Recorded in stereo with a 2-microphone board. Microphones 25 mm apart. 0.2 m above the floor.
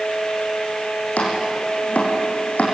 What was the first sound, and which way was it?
Chopping, 80° left.